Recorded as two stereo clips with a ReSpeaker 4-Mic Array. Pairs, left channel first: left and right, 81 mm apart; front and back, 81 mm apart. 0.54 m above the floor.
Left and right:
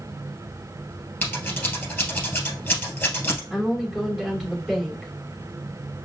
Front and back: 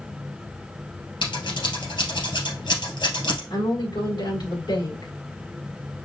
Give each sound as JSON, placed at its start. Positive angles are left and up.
{"t": 1.2, "sound": "scissors", "azimuth_deg": 15, "distance_m": 2.5}
{"t": 3.5, "sound": "a woman speaking", "azimuth_deg": -5, "distance_m": 3.5}